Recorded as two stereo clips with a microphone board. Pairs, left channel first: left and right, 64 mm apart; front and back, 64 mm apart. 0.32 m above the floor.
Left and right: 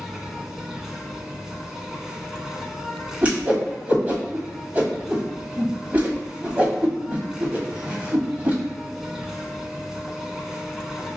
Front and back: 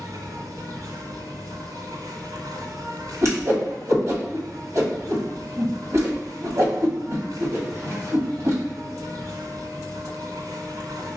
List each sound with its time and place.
0.0 s an insect: 175° right, 0.7 m
3.2 s a whoosh: 150° right, 1.2 m